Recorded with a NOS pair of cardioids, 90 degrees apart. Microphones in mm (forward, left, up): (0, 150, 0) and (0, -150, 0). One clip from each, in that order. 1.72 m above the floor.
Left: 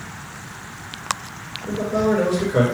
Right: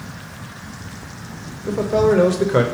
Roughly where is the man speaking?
Ahead right.